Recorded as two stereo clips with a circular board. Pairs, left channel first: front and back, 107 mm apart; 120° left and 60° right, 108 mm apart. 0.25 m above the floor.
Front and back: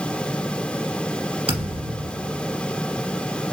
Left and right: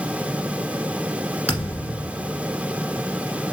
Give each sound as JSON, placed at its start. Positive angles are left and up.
{"t": 1.5, "sound": "a thud", "azimuth_deg": -160, "distance_m": 1.5}